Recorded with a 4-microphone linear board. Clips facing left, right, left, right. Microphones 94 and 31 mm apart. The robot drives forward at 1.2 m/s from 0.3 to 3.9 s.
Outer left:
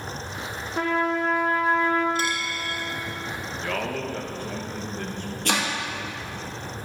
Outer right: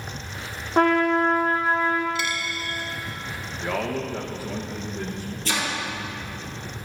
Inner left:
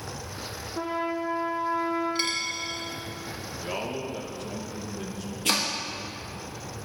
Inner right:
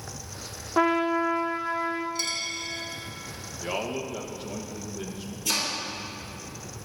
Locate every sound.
0.8 s a trumpet: 55° right (ahead or behind), 0.6 m; by 2.0 s 20° right (ahead or behind), 1.5 m
2.1 s a dropped coin: 40° left (ahead or behind), 1.2 m; by 2.8 s 30° left (ahead or behind), 1.7 m
3.6 s a man speaking: 10° right (ahead or behind), 0.8 m
5.5 s chopping: 65° left (ahead or behind), 1.6 m